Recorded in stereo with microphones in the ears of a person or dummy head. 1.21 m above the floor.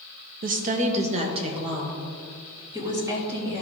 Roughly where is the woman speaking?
Right.